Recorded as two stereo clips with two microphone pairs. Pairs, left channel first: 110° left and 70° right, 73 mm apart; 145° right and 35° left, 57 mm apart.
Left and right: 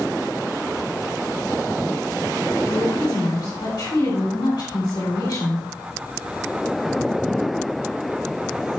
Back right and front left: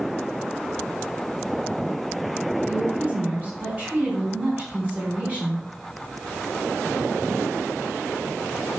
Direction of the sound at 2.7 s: 100° left.